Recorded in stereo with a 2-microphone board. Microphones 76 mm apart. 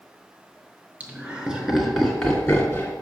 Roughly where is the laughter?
Centre.